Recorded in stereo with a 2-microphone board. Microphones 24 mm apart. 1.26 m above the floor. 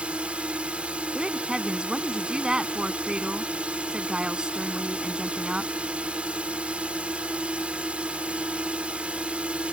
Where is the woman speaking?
35° right (ahead or behind).